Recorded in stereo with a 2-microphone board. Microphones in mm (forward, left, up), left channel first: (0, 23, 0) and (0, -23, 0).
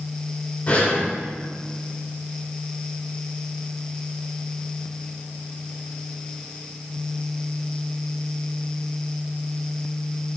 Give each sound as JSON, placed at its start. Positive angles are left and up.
{"t": 0.7, "sound": "breathing", "side_deg": 40, "distance_m": 1.6}